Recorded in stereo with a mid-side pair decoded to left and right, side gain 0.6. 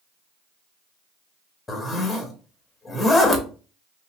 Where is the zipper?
20° left, 1.1 m.